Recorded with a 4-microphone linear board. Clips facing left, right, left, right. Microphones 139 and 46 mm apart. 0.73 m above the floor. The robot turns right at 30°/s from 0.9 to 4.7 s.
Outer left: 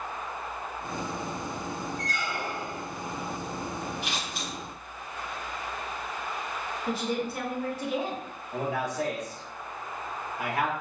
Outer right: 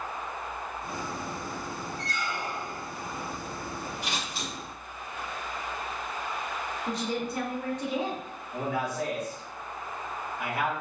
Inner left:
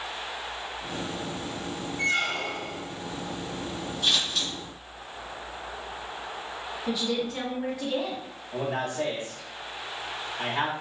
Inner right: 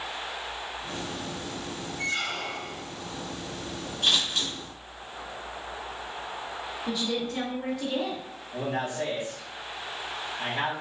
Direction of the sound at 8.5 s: 55° left (ahead or behind).